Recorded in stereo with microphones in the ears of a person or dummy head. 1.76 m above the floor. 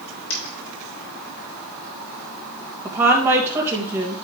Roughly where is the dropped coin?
Left.